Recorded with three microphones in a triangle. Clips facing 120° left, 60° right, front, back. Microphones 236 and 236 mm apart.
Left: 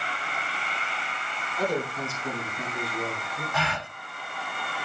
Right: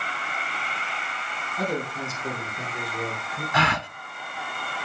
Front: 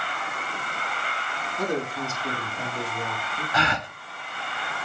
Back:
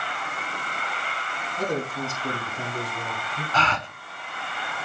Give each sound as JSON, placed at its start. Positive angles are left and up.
{"t": 1.6, "sound": "a man speaking", "azimuth_deg": -130, "distance_m": 4.0}
{"t": 3.5, "sound": "a gasp", "azimuth_deg": -75, "distance_m": 0.7}